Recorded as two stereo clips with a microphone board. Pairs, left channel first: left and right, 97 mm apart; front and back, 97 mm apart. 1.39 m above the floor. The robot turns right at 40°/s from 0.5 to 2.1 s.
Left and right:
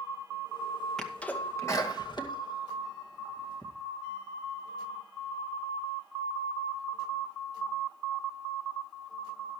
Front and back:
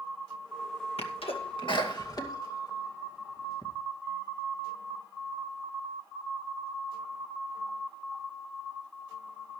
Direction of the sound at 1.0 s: 5° left.